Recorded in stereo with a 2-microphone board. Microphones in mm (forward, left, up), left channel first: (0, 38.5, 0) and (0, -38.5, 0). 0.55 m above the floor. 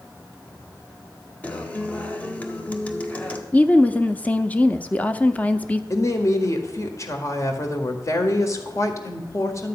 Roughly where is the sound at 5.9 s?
Left.